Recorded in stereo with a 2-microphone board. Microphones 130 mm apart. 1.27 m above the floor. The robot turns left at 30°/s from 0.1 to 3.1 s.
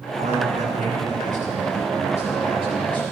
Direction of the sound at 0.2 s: 60° right.